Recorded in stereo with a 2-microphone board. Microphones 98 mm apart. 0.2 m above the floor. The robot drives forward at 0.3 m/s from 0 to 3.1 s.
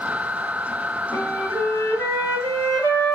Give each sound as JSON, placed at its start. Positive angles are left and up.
{"t": 1.1, "sound": "a flute", "side_deg": 35, "distance_m": 1.0}